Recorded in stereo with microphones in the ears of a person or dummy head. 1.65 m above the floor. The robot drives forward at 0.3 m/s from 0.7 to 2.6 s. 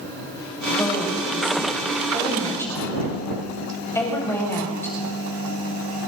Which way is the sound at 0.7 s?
5° left (ahead or behind).